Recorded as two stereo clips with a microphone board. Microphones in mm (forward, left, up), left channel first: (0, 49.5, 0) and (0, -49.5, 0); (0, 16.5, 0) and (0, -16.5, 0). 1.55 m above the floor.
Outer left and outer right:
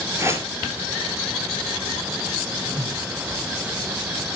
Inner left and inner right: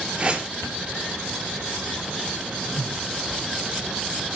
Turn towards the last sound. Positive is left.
turn(degrees=-60)  # may be behind; listen again after turning